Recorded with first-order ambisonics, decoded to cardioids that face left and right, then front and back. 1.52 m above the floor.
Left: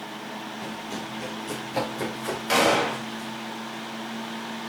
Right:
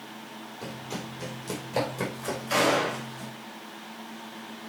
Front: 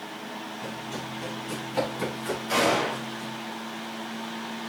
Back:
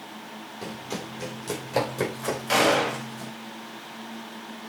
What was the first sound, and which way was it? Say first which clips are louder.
Running footsteps: left 4 dB, back 4 dB; 170° right.